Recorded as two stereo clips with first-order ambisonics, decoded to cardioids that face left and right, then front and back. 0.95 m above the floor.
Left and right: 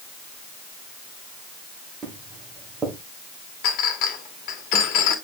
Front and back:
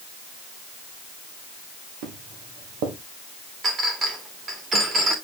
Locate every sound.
2.0 s footsteps: 165° right, 3 m
3.6 s a clink: 115° left, 2 m